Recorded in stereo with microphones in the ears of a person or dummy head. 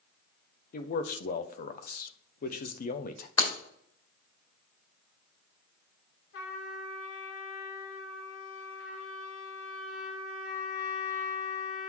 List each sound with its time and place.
0.7 s a man speaking: 50° left (ahead or behind), 0.8 m
3.4 s breaking glass: 30° left (ahead or behind), 2.5 m
6.3 s a trumpet: 85° left, 2.5 m